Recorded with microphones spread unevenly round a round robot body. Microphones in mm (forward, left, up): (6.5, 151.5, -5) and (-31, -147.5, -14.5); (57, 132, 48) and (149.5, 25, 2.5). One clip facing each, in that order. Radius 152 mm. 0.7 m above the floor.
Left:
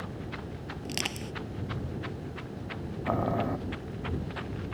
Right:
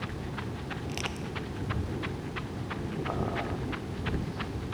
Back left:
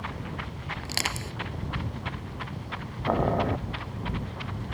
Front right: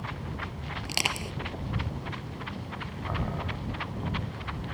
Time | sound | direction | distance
0.8 | crushing | 25° left | ?
3.1 | boiling | 110° left | ?